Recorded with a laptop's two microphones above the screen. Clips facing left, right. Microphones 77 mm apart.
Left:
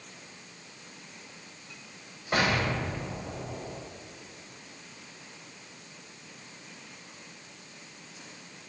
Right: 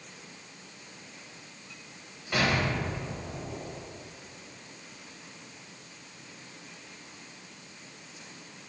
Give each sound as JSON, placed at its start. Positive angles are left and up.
{"t": 2.3, "sound": "an explosion", "side_deg": 45, "distance_m": 1.3}